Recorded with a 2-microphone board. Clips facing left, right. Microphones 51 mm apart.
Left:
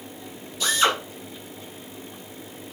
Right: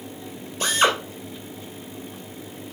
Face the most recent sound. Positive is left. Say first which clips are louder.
# right 2 dB
turn(degrees=-40)  # may be behind; listen again after turning